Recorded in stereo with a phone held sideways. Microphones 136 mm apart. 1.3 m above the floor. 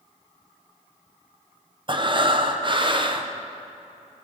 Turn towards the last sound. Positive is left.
turn(degrees=-35)  # may be behind; listen again after turning